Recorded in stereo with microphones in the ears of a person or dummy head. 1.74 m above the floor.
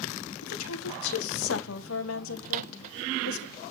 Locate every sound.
0.4 s a woman speaking: 80° left, 1.8 m
2.5 s a microwave: 45° right (ahead or behind), 0.6 m